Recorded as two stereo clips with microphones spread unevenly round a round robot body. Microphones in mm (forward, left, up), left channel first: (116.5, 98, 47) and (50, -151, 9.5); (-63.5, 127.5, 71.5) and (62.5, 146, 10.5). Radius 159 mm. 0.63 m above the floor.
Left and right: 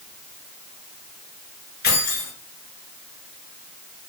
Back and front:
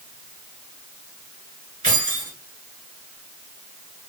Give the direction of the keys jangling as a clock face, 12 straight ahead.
11 o'clock.